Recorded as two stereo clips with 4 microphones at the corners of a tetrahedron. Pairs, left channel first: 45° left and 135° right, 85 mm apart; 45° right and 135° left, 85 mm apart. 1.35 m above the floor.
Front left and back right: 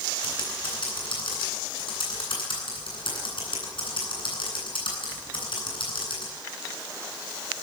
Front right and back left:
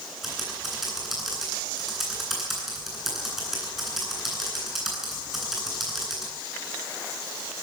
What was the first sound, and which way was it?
Typing on a keyboard, 50° left.